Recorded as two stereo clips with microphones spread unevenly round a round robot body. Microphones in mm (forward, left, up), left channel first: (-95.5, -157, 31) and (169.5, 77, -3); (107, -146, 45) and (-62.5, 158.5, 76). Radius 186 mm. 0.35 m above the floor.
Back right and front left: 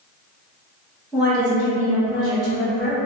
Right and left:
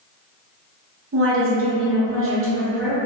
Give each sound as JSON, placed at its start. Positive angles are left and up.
{"t": 1.1, "sound": "a woman speaking", "azimuth_deg": 115, "distance_m": 1.0}